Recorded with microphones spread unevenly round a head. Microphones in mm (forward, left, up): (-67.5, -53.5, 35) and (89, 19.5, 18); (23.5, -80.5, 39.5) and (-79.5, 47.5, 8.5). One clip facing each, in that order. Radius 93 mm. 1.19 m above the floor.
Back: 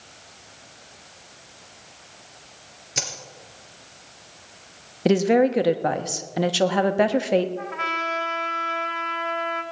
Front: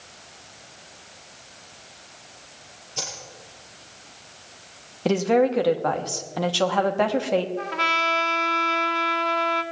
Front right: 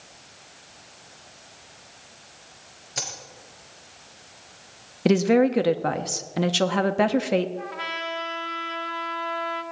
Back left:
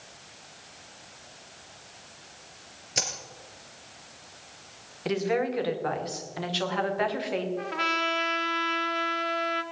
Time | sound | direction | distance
3.0 | a dropped coin | 165° right | 3.5 m
5.0 | a woman speaking | 85° right | 1.3 m
7.6 | a trumpet | 80° left | 1.1 m